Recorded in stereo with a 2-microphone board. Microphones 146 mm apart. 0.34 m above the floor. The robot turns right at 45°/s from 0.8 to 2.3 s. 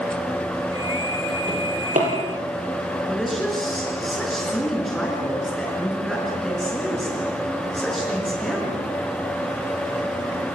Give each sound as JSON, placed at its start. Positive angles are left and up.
{"t": 1.5, "sound": "a drawer", "side_deg": -40, "distance_m": 7.0}
{"t": 3.1, "sound": "a woman speaking", "side_deg": 0, "distance_m": 5.0}